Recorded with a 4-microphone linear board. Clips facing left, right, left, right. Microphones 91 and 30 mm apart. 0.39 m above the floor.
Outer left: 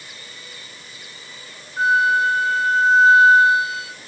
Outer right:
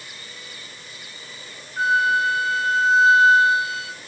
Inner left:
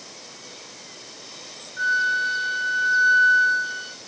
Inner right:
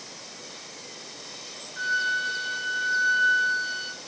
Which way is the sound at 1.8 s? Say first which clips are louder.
Outer left 2 dB, inner left 4 dB; 45° right (ahead or behind).